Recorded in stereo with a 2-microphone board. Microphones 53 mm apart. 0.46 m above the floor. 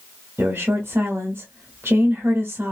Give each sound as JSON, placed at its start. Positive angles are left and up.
{"t": 0.4, "sound": "a woman speaking", "side_deg": -55, "distance_m": 1.2}